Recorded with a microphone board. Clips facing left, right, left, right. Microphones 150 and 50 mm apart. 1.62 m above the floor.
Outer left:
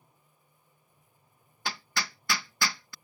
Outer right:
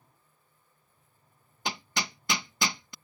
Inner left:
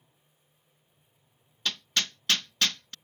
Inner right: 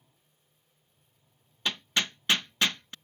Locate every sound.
1.6 s hammering: 20° right (ahead or behind)